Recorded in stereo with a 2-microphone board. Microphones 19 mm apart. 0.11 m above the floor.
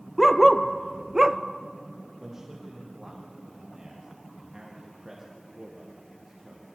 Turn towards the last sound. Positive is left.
turn(degrees=-15)  # may be behind; listen again after turning